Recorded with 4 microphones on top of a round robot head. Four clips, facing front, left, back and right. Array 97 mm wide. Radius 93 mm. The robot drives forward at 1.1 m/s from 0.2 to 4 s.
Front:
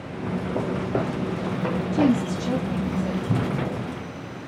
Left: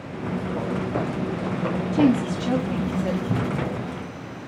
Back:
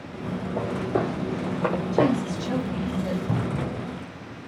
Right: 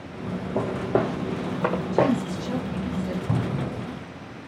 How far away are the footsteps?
About 2 m.